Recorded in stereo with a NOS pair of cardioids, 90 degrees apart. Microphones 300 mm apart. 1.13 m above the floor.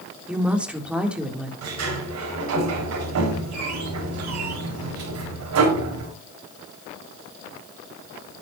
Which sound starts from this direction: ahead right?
A sliding door, at 1.6 s.